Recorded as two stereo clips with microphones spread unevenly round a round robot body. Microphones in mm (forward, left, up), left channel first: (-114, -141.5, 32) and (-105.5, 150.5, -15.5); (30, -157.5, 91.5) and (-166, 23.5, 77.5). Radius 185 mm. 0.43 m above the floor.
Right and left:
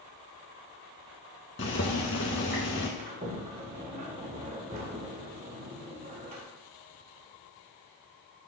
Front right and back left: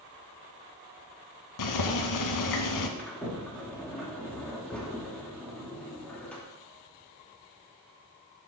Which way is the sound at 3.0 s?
45° left.